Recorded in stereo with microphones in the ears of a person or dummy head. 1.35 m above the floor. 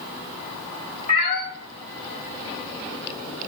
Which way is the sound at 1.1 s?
40° left (ahead or behind).